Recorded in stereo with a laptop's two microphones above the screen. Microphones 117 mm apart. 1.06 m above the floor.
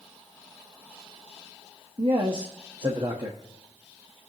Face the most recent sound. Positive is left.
turn(degrees=-45)  # may be behind; listen again after turning